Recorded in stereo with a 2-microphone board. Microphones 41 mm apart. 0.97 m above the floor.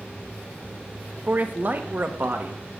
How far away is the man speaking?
About 0.7 m.